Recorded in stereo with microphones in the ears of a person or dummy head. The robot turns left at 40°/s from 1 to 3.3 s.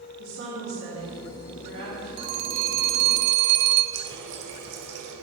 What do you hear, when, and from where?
0.2 s a woman speaking: 100° right, 3 m; by 2.1 s 140° right, 3 m
2.2 s a phone ringing: 30° right, 0.6 m; by 3.8 s 75° right, 0.6 m
3.9 s a running tap: 70° right (ahead or behind), 1.3 m